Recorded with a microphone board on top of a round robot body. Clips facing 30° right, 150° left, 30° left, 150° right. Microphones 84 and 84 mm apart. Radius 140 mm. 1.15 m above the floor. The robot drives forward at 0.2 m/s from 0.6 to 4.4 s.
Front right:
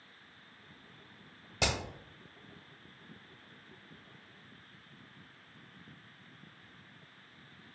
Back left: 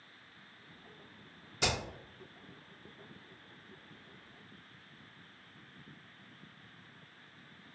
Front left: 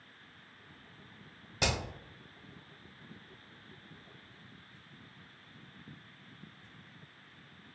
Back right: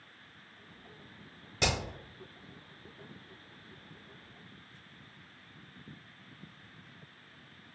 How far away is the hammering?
About 1.3 m.